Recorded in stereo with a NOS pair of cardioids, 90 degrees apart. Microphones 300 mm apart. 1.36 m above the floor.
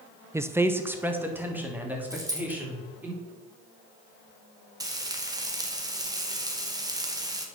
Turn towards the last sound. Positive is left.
turn(degrees=-10)